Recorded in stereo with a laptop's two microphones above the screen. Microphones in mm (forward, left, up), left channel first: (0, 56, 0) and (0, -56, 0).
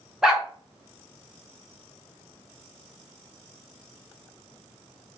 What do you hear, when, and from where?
0.2 s a dog barking: 5° right (ahead or behind), 1.1 m